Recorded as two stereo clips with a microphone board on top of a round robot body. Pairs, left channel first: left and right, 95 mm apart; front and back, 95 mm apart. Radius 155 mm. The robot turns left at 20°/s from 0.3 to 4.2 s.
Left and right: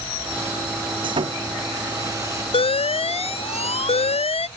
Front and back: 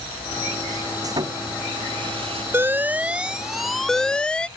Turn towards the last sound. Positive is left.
turn(degrees=80)